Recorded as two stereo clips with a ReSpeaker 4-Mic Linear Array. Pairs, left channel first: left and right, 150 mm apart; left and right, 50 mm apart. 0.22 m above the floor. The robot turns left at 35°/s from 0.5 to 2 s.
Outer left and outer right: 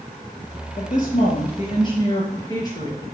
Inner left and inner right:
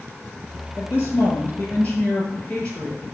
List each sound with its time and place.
0.8 s a woman speaking: 70° left, 5 m; by 3.0 s 25° left, 5 m